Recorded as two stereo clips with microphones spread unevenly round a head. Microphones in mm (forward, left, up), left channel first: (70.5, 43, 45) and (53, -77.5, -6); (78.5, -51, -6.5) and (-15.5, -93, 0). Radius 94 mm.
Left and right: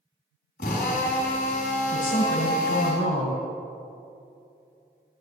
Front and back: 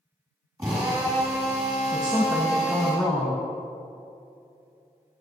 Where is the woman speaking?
120° left, 2 m.